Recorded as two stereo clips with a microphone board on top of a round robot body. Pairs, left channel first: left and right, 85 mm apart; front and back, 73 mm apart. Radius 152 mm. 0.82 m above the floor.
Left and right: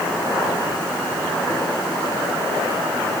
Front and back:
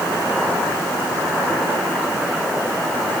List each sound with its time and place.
Only background noise.